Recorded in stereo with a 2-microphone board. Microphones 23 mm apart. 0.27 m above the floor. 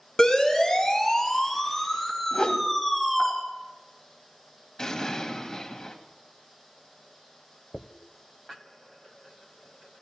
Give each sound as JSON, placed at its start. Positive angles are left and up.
{"t": 0.2, "sound": "a siren", "side_deg": 40, "distance_m": 3.0}
{"t": 2.3, "sound": "a whoosh", "side_deg": 45, "distance_m": 1.1}
{"t": 4.8, "sound": "an explosion", "side_deg": 30, "distance_m": 1.9}
{"t": 7.7, "sound": "a dropped coin", "side_deg": 20, "distance_m": 0.6}